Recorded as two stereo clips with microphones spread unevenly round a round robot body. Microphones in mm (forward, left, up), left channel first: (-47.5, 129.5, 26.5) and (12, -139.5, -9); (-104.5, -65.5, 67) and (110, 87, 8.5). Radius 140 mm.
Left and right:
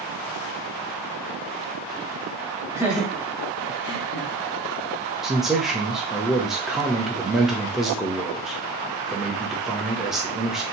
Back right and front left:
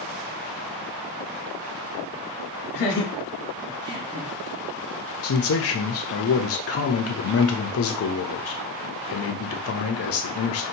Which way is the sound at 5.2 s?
155° right.